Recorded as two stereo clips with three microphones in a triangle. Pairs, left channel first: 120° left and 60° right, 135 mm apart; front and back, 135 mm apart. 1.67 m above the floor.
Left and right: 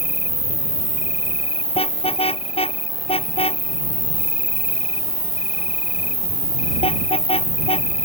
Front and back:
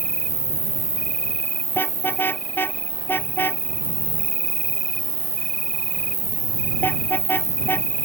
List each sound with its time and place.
0.0 s an insect: 155° left
1.8 s a car horn: 75° left